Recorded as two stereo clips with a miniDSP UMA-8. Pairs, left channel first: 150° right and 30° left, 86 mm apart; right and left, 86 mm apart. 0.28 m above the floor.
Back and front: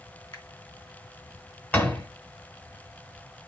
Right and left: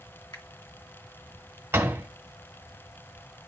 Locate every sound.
0.3 s a finger snap: 120° right, 2 m
1.7 s a door slam: 145° left, 1.5 m